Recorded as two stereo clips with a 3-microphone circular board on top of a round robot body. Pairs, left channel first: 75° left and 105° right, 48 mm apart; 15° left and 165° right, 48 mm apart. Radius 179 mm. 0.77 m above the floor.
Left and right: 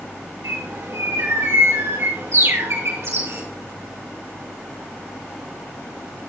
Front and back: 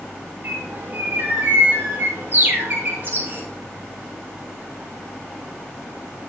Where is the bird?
115° right, 5.5 m.